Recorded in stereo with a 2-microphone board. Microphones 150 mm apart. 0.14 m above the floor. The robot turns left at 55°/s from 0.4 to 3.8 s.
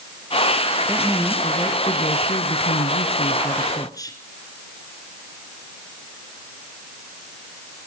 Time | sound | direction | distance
0.9 | a woman speaking | 165° right | 1.8 m